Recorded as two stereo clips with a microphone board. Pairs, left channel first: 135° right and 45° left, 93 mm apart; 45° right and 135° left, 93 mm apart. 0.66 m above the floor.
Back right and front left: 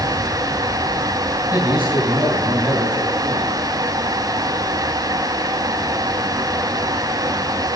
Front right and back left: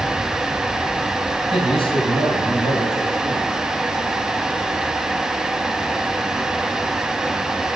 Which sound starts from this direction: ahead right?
A man speaking, at 1.5 s.